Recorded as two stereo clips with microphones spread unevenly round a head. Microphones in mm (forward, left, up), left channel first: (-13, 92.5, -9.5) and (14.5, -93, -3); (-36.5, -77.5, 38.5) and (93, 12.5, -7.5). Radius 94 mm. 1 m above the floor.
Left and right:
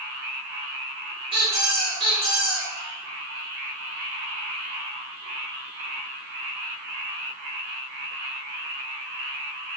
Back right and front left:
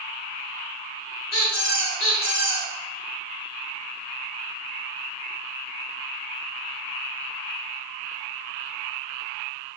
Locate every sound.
1.3 s a squeak: 145° right, 1.7 m